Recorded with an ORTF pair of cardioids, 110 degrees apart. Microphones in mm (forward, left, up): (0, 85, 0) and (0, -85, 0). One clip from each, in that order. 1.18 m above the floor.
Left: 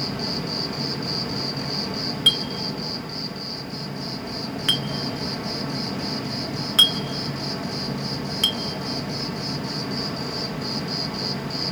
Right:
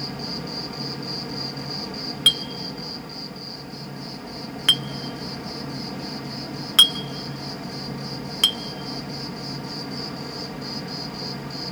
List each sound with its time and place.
0.0 s an insect: 25° left, 0.8 m
2.3 s a clink: 20° right, 0.7 m